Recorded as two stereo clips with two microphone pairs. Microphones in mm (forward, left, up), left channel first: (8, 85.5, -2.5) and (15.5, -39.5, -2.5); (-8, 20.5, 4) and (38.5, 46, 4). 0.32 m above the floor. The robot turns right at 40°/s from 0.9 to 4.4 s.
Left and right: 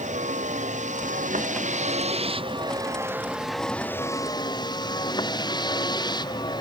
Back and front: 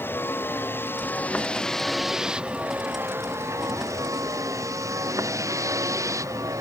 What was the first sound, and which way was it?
A vehicle, 105° right.